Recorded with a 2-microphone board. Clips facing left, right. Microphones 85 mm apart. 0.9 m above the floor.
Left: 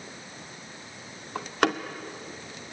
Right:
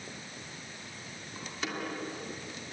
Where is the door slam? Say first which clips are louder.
Left 12 dB; 70° left (ahead or behind), 1.7 m.